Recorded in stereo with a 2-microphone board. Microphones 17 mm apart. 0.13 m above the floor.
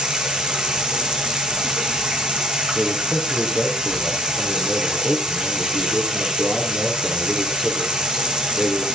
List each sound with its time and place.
0.0 s running water: 75° right (ahead or behind), 3 m
2.8 s a man speaking: 50° right (ahead or behind), 4.5 m